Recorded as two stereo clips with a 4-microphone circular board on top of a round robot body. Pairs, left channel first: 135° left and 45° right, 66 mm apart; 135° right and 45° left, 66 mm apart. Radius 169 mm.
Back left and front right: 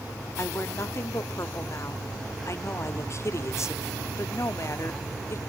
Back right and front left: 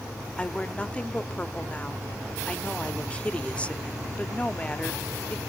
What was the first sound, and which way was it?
A woman speaking, 160° left.